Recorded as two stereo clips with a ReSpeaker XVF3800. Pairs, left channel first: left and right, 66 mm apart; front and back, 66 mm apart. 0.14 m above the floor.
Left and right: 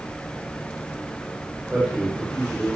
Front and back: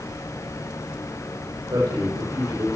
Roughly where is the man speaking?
Behind.